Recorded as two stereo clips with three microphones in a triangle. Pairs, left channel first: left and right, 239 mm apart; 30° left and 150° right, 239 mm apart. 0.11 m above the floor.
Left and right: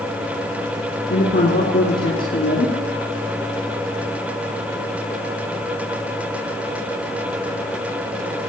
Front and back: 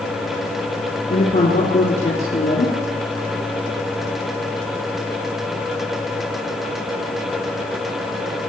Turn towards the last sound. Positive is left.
turn(degrees=75)